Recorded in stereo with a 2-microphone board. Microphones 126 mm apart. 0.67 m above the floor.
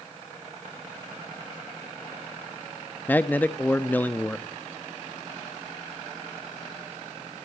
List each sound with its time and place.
3.1 s a man speaking: 15° left (ahead or behind), 0.8 m